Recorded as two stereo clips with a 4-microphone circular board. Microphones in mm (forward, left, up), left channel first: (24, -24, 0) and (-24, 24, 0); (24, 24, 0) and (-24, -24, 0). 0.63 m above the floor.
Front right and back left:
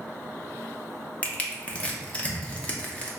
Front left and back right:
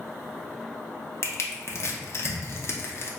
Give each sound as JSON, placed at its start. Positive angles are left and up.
{"t": 1.2, "sound": "crushing", "azimuth_deg": 20, "distance_m": 0.5}